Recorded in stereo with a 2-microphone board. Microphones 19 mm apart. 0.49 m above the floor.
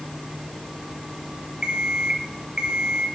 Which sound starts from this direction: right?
An alarm clock, at 1.6 s.